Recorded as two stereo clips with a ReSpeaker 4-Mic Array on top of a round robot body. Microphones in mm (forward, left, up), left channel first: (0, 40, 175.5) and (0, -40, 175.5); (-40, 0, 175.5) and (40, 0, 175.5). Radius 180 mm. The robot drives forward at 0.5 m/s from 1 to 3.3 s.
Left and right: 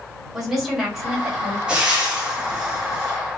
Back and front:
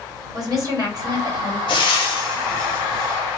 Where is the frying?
170° right, 0.5 m; by 3.2 s 175° right, 1.3 m.